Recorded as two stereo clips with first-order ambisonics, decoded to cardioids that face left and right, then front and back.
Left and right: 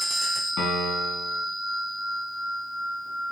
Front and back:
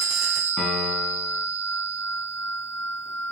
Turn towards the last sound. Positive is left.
turn(degrees=55)